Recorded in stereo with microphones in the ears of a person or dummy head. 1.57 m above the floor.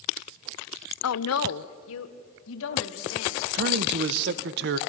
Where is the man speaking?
60° right (ahead or behind), 1.0 m.